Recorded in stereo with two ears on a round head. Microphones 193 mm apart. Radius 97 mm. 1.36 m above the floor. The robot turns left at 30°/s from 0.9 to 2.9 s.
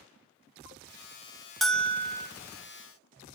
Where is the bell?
Centre (ahead or behind), 0.5 m; by 2.3 s 15° left (ahead or behind), 0.5 m.